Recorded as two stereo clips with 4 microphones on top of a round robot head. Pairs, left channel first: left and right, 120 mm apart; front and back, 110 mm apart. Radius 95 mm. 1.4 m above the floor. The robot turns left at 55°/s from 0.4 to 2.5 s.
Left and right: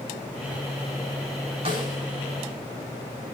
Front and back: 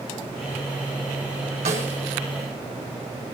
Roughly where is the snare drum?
Behind right.